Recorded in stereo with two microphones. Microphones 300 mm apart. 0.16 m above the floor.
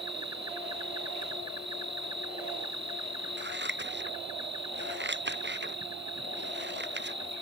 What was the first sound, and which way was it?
An insect, 70° right (ahead or behind).